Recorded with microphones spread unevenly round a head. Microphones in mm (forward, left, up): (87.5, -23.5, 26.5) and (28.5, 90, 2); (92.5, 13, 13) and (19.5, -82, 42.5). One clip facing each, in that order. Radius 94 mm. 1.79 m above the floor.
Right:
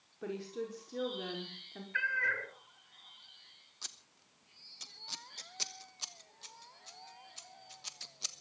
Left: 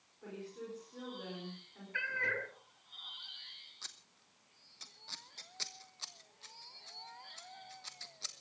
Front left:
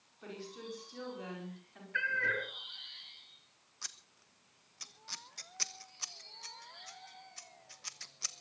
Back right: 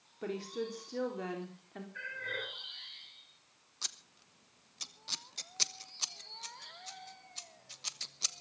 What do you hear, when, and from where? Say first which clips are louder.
0.2 s a woman speaking: right 7 dB, back right 8 dB; 100° right, 4.5 m
1.9 s a cat meowing: right 1 dB, front left 9 dB; 55° left, 4 m
3.8 s scissors: right 2 dB, back right 2 dB; 110° right, 1.1 m